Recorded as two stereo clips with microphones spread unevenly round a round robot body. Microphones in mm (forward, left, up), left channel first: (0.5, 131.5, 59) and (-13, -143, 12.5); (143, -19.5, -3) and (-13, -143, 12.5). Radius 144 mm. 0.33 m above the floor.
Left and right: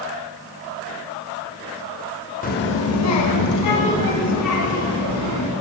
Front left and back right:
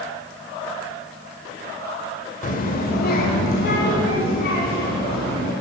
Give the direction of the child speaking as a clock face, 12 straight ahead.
11 o'clock.